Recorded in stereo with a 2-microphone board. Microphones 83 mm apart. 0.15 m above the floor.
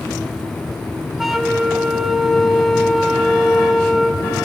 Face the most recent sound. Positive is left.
turn(degrees=0)  # may be behind; listen again after turning